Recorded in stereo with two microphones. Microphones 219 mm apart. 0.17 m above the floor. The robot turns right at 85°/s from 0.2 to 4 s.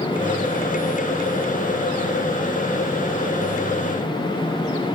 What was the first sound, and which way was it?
Only background noise.